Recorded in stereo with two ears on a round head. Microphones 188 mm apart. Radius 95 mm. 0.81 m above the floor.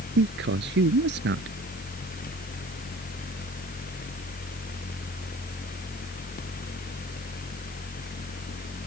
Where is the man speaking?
60° right (ahead or behind).